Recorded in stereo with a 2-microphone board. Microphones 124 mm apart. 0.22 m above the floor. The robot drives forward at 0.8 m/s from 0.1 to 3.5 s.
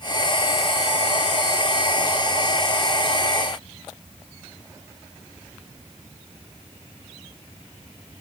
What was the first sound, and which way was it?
Only background noise.